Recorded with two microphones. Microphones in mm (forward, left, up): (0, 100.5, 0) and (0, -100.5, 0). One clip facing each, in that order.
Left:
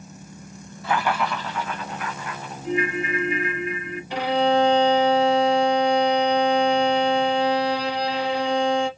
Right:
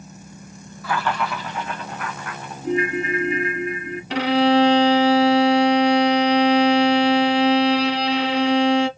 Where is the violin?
80° right, 0.5 m.